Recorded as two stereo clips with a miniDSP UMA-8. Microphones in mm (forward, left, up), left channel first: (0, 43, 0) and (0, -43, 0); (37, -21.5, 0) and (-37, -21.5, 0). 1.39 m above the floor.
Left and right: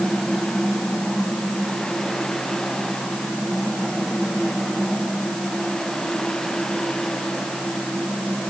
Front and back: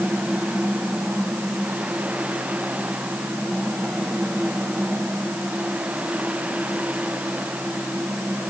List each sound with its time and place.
Only background noise.